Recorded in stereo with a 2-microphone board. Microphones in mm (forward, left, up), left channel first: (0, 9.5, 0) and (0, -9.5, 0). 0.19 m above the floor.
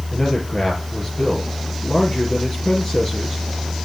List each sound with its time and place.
0.1 s a man speaking: 45° left (ahead or behind), 4.5 m